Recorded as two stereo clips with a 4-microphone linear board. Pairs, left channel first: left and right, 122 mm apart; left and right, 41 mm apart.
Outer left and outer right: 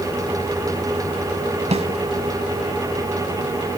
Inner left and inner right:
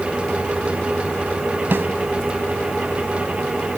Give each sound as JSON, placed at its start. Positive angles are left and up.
{"t": 1.7, "sound": "a snare drum", "side_deg": -60, "distance_m": 1.4}